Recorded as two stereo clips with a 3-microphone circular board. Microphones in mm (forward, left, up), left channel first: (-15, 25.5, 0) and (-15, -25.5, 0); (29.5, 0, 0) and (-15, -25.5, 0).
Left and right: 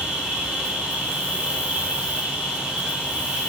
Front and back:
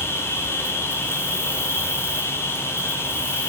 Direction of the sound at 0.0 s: 15° right.